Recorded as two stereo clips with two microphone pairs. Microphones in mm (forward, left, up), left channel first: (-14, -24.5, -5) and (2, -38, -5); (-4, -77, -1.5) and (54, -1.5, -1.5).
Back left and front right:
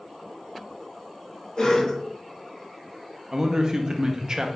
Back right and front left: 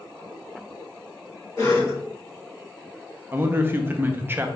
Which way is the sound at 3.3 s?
5° right.